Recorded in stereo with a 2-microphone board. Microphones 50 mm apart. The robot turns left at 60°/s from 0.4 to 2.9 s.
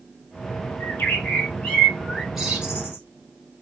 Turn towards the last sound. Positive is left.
turn(degrees=-45)